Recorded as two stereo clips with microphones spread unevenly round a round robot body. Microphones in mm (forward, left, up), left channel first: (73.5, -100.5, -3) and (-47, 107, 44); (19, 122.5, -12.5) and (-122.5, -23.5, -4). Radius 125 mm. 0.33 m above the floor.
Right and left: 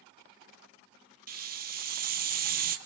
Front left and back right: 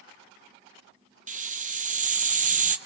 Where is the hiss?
175° left, 1.3 m.